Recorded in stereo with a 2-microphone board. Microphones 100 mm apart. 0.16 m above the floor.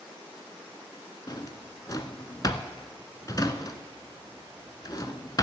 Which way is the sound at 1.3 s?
40° left (ahead or behind).